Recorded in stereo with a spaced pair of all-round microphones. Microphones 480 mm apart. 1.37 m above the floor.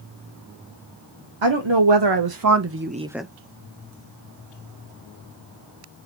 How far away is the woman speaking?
About 1.0 m.